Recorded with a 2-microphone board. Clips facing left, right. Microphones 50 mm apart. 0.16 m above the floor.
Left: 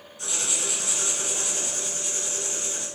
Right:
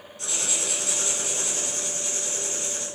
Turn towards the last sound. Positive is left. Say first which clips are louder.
# even
turn(degrees=15)  # may be behind; listen again after turning